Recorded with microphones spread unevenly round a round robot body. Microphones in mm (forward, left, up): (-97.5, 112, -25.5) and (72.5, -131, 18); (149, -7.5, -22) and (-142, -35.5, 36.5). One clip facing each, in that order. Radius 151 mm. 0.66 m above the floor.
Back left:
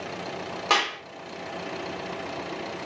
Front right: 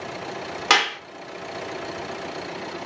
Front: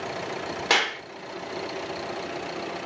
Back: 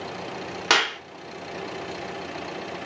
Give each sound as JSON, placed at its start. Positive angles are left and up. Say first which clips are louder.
{"t": 0.7, "sound": "a clap", "louder": "front right 3 dB, back 1 dB", "azimuth_deg": -110, "distance_m": 1.5}